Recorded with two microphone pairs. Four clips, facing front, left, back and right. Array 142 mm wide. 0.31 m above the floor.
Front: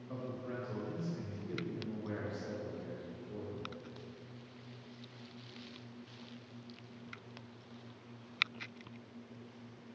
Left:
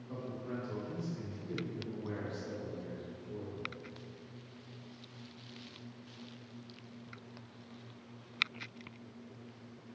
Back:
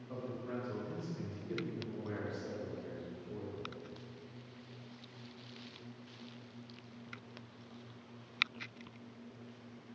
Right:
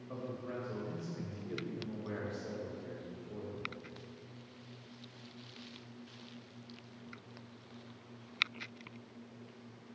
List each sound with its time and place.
0.1 s a man speaking: 60° right, 1.0 m